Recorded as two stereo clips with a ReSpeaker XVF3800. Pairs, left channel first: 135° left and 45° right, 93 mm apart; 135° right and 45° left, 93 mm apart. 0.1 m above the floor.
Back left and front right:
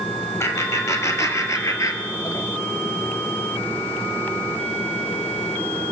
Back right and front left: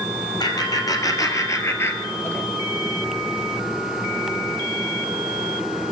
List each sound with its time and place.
0.4 s laughter: 170° right, 2.5 m; by 2.5 s 165° left, 1.7 m